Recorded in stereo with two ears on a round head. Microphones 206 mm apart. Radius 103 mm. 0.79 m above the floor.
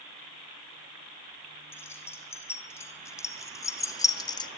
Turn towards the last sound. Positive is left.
turn(degrees=20)  # may be behind; listen again after turning